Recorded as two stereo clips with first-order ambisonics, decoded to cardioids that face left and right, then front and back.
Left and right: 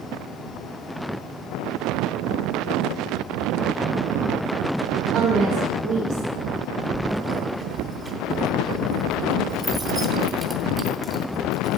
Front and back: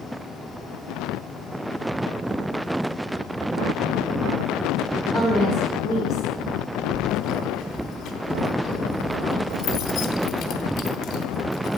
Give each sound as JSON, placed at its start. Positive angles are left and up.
{"t": 5.1, "sound": "a woman speaking", "azimuth_deg": -100, "distance_m": 1.6}
{"t": 6.9, "sound": "keys jangling", "azimuth_deg": -20, "distance_m": 0.9}